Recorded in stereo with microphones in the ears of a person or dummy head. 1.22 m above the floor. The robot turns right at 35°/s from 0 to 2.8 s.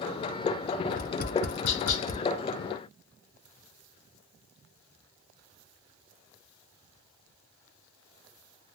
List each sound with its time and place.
0.9 s tapping: 45° left (ahead or behind), 0.5 m; by 2.2 s 65° left (ahead or behind), 0.5 m